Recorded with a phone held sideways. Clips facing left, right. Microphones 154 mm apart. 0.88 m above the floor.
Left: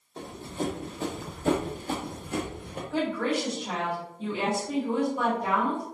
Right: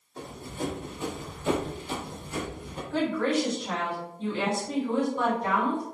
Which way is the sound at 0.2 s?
20° left (ahead or behind).